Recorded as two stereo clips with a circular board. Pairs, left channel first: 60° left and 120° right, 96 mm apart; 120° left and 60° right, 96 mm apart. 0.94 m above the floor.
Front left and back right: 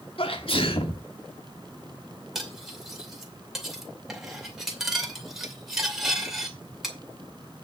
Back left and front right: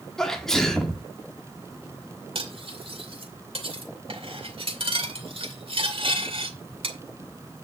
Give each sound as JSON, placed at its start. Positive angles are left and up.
{"t": 0.2, "sound": "a sneeze", "azimuth_deg": 35, "distance_m": 1.9}
{"t": 2.4, "sound": "cutlery clinking", "azimuth_deg": -35, "distance_m": 2.5}